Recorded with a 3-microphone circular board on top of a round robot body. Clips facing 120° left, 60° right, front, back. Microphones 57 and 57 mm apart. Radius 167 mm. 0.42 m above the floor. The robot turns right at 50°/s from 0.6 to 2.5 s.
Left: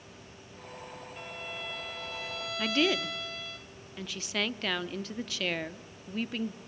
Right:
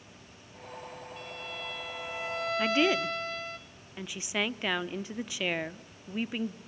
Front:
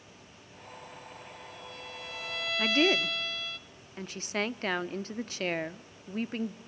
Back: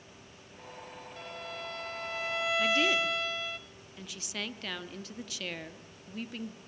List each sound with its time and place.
1.2 s a violin: straight behind, 0.5 m; by 3.6 s 110° right, 0.5 m
2.6 s a woman speaking: 5° left, 1.0 m